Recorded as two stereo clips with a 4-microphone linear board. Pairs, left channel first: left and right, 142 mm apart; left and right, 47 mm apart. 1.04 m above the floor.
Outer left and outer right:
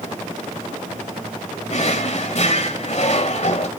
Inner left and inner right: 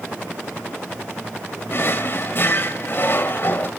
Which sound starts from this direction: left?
A drawer, at 1.7 s.